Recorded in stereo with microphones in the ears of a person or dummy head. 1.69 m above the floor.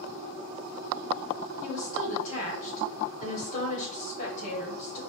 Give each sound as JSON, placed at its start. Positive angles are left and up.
{"t": 1.6, "sound": "a woman speaking", "side_deg": 40, "distance_m": 1.5}